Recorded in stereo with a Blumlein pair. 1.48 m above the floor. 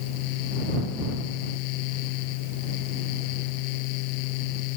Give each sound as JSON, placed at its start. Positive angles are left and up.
{"t": 0.0, "sound": "a fan", "azimuth_deg": 45}